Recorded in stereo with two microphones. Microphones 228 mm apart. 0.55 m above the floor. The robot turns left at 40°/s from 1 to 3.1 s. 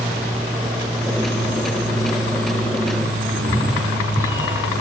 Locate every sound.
0.0 s an aircraft: 25° right; by 4.8 s 110° right
3.3 s a cat meowing: 10° right (ahead or behind)